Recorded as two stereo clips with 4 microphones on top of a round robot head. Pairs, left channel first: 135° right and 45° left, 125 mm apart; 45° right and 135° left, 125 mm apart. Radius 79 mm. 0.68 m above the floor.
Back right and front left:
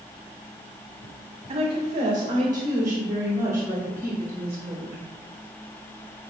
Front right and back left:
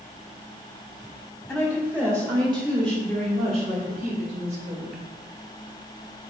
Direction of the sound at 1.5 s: 45° left.